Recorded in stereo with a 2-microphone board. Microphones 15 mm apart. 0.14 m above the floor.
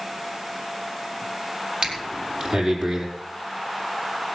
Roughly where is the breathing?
Right.